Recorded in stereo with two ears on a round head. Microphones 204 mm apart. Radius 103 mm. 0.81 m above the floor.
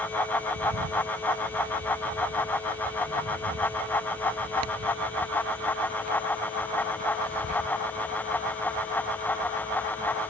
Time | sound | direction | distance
0.6 | a bird | 75° right (ahead or behind) | ?